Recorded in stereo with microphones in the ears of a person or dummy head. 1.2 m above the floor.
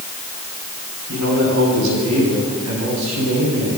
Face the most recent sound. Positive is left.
turn(degrees=-75)  # may be behind; listen again after turning